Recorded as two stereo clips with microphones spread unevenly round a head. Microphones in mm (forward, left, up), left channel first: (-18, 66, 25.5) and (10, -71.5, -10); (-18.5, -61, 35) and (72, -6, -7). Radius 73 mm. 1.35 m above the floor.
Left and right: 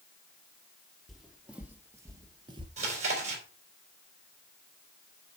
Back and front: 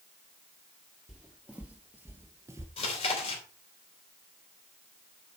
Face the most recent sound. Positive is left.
turn(degrees=-125)